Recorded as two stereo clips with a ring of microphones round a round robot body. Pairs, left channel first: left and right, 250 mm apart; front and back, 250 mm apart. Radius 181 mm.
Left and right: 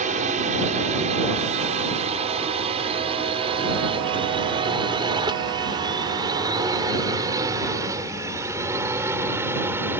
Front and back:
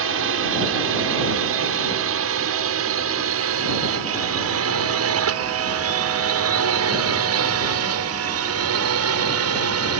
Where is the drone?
150° right; by 10.0 s 175° right.